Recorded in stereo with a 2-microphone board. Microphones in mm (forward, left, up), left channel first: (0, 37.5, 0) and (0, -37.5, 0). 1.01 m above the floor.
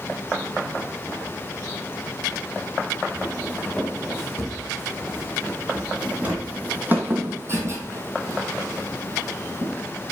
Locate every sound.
3.1 s footsteps: centre (ahead or behind), 4 m; by 9.7 s 45° right (ahead or behind), 1.8 m